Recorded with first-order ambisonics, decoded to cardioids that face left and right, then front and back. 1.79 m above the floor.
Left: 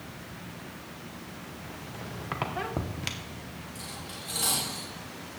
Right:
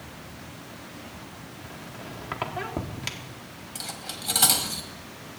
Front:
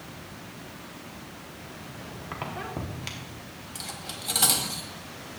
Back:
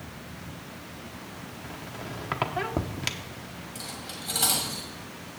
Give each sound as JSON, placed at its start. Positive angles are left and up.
{"t": 1.6, "sound": "a squeak", "azimuth_deg": 180, "distance_m": 0.8}
{"t": 3.8, "sound": "cutlery clinking", "azimuth_deg": -60, "distance_m": 1.5}